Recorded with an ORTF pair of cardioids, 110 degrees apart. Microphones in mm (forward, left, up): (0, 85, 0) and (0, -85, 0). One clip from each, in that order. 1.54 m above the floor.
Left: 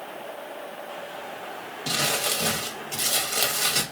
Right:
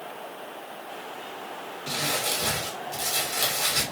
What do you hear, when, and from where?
1.9 s crumpling: 45° left, 1.0 m